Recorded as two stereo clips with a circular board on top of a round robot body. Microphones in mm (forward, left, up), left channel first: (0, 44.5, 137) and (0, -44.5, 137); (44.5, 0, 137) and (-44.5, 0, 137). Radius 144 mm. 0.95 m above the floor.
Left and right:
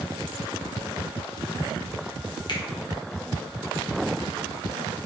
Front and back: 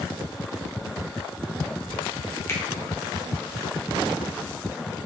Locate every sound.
2.5 s a finger snap: 60° left, 2.0 m